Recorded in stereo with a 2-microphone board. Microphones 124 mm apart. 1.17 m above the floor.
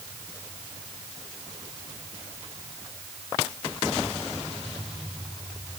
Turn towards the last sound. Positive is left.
No sound to turn to.